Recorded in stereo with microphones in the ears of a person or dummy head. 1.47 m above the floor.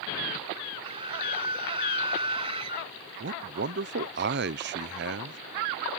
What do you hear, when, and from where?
0.8 s a scream: 35° right (ahead or behind)
3.2 s a man speaking: 55° right (ahead or behind)